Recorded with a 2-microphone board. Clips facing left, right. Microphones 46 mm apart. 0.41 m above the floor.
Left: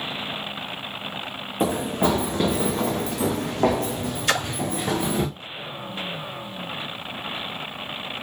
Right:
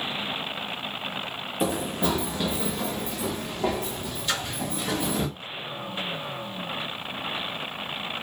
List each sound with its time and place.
1.6 s running footsteps: 40° left (ahead or behind), 1.3 m; by 5.3 s 45° left (ahead or behind), 1.5 m
4.3 s a splash: 70° left (ahead or behind), 0.5 m